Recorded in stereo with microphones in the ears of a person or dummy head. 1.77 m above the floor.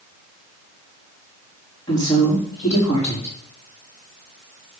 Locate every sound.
1.9 s a woman speaking: 10° left (ahead or behind), 3.5 m